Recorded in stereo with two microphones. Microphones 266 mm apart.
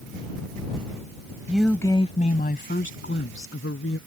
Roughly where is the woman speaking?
Centre.